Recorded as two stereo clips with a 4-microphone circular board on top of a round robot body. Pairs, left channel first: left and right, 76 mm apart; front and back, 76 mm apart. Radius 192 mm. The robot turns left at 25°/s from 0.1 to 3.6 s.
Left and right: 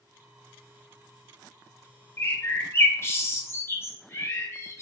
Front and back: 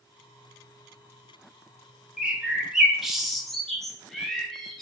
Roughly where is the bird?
Behind left.